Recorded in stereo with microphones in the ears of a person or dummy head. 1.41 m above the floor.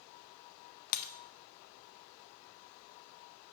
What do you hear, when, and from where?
0.9 s breaking glass: 45° left (ahead or behind), 0.8 m